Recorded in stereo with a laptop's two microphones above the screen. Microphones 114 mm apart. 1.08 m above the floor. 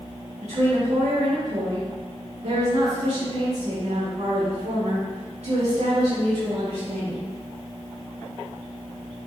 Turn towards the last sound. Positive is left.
turn(degrees=-75)  # may be behind; listen again after turning